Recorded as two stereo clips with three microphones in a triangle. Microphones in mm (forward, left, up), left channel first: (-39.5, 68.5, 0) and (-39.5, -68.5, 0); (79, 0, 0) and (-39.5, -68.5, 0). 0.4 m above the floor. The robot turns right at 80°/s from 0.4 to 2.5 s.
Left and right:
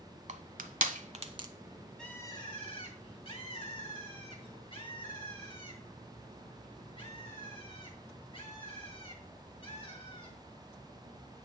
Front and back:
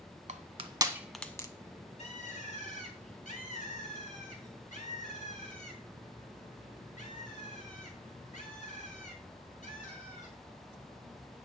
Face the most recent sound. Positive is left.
turn(degrees=45)